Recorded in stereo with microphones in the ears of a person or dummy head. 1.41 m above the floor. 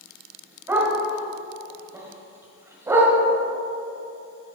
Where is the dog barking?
15° right (ahead or behind), 2 m.